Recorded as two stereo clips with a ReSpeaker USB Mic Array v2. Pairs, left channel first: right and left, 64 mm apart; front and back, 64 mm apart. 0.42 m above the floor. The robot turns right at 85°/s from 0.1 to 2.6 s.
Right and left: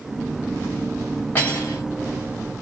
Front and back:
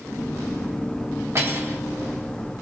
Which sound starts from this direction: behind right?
Cutlery clinking, at 1.4 s.